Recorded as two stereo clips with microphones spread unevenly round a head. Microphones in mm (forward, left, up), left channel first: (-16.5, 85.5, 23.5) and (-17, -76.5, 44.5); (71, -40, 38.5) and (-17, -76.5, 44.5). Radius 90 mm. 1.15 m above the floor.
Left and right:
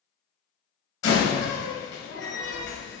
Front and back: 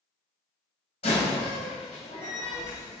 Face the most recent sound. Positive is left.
turn(degrees=70)